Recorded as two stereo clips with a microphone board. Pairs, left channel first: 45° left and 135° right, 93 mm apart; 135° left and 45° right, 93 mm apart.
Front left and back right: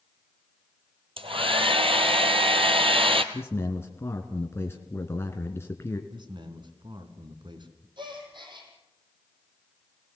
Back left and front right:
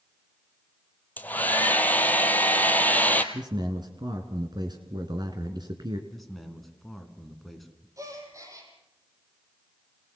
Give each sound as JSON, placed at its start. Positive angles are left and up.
{"t": 1.2, "sound": "a hair dryer", "azimuth_deg": -155, "distance_m": 1.5}
{"t": 3.3, "sound": "a man speaking", "azimuth_deg": -15, "distance_m": 2.0}
{"t": 6.1, "sound": "a man speaking", "azimuth_deg": -135, "distance_m": 2.5}
{"t": 8.0, "sound": "a gasp", "azimuth_deg": -100, "distance_m": 5.0}